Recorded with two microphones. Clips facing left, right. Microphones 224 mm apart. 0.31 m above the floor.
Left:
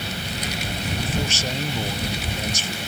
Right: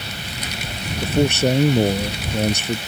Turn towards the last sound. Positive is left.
turn(degrees=-60)  # may be behind; listen again after turning